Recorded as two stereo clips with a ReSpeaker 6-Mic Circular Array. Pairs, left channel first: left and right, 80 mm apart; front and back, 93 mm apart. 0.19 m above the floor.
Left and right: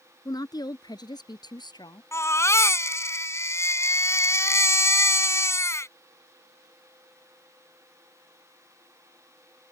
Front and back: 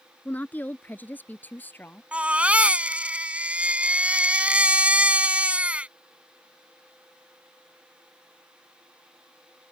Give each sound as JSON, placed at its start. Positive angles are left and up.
{"t": 0.2, "sound": "a woman speaking", "azimuth_deg": 70}
{"t": 2.1, "sound": "a baby crying", "azimuth_deg": 110}